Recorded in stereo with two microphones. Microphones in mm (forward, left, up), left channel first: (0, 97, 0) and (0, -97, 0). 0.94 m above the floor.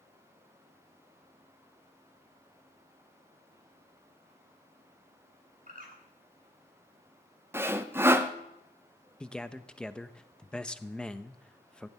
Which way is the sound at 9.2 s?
5° left (ahead or behind).